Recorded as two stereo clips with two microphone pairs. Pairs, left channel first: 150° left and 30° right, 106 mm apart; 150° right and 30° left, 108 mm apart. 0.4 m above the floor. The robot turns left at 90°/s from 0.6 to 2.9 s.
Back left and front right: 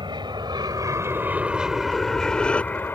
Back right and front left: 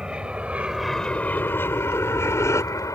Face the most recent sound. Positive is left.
turn(degrees=-155)